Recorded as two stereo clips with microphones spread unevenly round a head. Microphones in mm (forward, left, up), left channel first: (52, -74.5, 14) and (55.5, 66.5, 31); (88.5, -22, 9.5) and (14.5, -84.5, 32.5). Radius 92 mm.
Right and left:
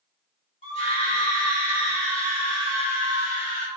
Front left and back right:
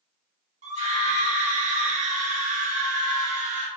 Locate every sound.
0.6 s a scream: 150° right, 1.7 m